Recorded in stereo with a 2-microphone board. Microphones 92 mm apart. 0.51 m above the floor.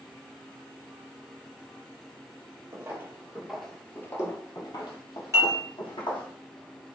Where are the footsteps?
30° right (ahead or behind), 0.7 m; by 6.3 s 60° left (ahead or behind), 1.4 m.